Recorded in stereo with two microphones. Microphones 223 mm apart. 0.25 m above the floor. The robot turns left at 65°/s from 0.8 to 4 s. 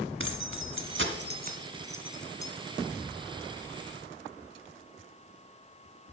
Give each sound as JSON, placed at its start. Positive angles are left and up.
{"t": 0.2, "sound": "keys jangling", "side_deg": -65, "distance_m": 1.4}